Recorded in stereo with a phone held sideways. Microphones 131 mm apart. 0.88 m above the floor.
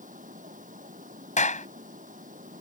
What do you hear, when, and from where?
0.0 s running water: 80° right
1.4 s a clap: 65° left (ahead or behind)